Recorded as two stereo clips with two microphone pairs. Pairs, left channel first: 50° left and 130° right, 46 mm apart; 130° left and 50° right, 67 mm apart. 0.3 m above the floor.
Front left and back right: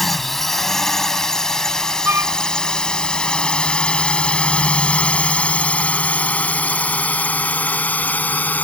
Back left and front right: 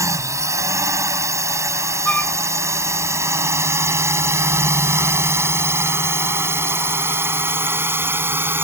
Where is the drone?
35° right; by 8.6 s straight ahead.